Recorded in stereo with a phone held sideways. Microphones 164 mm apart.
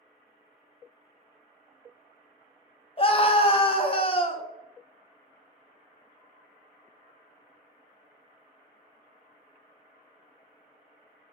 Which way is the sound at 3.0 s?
35° left (ahead or behind).